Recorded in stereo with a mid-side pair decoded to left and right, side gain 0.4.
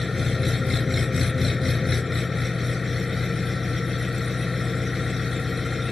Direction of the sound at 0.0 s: 20° left.